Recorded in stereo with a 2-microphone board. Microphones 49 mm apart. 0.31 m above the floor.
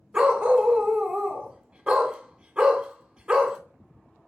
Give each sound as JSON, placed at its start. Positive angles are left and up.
{"t": 0.1, "sound": "a dog barking", "side_deg": -20, "distance_m": 0.5}